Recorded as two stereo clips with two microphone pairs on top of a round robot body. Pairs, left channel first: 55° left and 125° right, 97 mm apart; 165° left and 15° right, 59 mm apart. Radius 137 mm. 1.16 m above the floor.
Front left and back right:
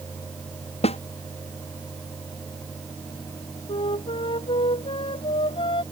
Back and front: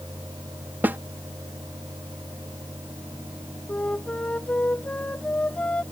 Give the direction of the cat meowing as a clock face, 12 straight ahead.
No cat meowing in this recording.